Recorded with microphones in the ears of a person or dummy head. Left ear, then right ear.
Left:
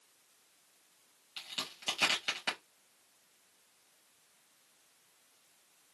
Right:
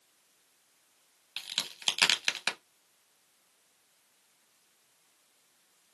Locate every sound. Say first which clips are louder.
1.4 s a crack: right 5 dB; 45° right (ahead or behind), 0.8 m